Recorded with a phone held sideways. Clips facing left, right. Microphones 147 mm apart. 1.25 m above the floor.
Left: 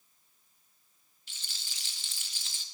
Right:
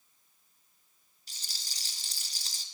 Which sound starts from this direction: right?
A rattle, at 1.3 s.